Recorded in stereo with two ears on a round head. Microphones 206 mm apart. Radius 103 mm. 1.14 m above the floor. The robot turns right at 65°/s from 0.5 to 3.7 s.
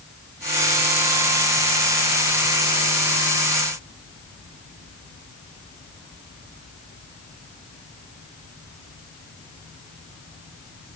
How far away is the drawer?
No drawer in this recording.